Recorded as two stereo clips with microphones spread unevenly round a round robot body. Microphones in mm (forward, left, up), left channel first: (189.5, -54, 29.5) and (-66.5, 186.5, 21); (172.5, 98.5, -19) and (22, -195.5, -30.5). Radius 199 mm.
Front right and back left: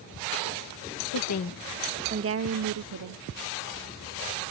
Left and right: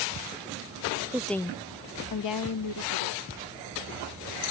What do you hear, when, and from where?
1.1 s a woman speaking: 35° right; by 3.2 s 105° left